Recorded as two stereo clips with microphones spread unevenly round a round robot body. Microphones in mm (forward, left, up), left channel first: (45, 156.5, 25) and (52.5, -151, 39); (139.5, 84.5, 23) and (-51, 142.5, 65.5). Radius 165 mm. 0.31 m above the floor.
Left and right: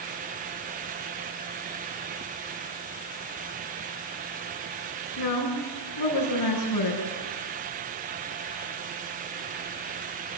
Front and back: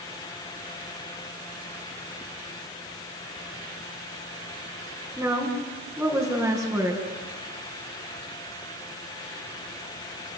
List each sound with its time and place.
5.2 s a woman speaking: 75° left, 4 m